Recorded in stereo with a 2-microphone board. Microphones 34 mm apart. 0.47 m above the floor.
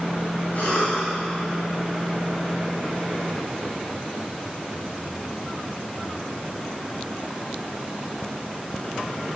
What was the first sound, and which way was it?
A cough, 70° left (ahead or behind).